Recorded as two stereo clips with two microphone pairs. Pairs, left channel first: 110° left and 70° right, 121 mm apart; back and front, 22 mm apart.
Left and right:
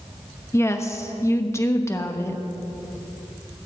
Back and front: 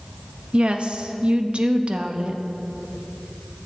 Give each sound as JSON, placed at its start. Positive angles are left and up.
{"t": 0.5, "sound": "a woman speaking", "azimuth_deg": 40, "distance_m": 0.9}